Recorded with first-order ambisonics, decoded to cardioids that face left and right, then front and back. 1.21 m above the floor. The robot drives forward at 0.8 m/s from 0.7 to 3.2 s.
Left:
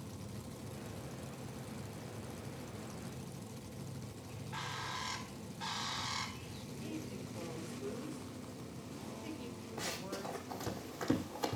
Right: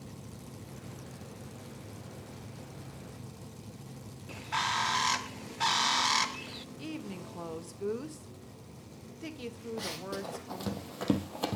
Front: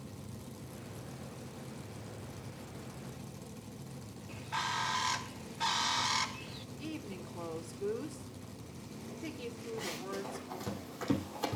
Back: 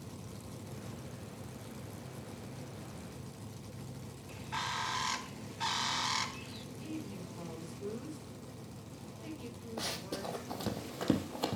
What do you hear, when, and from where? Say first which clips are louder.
4.3 s a bird: right 13 dB, front 2 dB; 85° right, 0.5 m
6.8 s a woman speaking: right 2 dB, front 1 dB; 70° right, 1.3 m
9.8 s running footsteps: right 2 dB, back 3 dB; 155° right, 1.8 m; by 11.6 s 110° right, 1.4 m